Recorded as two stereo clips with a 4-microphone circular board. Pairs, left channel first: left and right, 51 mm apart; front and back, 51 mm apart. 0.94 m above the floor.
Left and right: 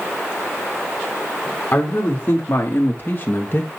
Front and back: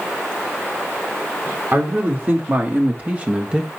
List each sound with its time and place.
1.7 s a man speaking: 140° left, 2.5 m; by 3.7 s 115° left, 1.1 m